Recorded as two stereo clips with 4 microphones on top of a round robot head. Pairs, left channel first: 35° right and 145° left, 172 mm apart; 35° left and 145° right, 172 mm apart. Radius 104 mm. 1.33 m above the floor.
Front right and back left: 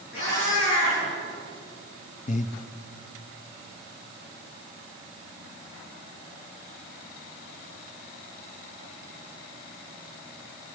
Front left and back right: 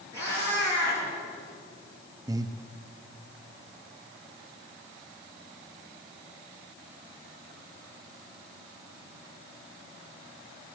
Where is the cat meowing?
35° right, 7 m.